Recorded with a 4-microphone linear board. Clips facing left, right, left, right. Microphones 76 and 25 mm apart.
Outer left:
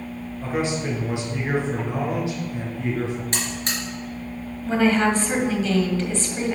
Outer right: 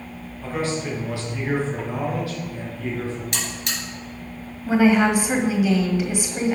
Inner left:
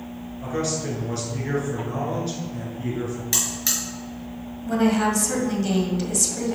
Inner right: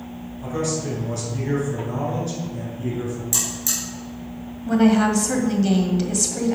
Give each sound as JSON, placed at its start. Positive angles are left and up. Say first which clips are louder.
{"t": 0.4, "sound": "a man speaking", "louder": "outer left 1 dB, inner right 1 dB", "side_deg": 20, "distance_m": 4.0}
{"t": 3.3, "sound": "a buzzer", "louder": "outer left 2 dB, inner left 1 dB", "side_deg": 35, "distance_m": 3.5}
{"t": 4.7, "sound": "a woman speaking", "louder": "outer right 2 dB, inner right 4 dB", "side_deg": -15, "distance_m": 1.4}